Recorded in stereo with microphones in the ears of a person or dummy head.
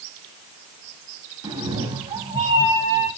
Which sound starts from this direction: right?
A cat meowing, at 1.4 s.